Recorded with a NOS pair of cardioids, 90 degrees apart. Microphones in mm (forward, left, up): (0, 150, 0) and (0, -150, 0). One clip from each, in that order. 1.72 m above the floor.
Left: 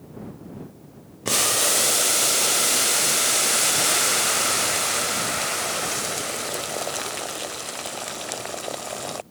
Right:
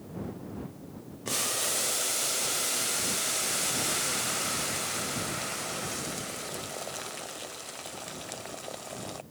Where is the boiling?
40° left.